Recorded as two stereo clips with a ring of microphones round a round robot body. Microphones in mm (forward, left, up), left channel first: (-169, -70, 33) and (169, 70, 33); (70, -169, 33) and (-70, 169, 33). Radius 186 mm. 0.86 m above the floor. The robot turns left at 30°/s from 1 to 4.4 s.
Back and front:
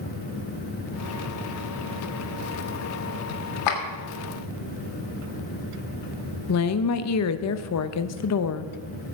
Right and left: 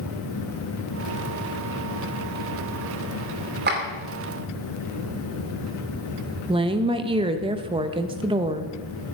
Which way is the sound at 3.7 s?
175° left.